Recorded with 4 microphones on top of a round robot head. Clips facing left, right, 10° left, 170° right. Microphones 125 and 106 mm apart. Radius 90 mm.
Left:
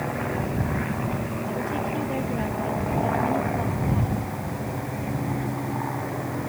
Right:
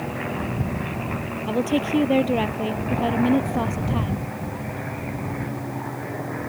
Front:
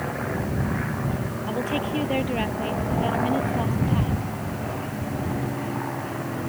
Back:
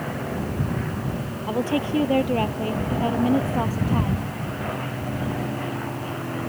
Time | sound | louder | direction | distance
1.5 | a woman speaking | right 9 dB, back 4 dB | 100° right | ?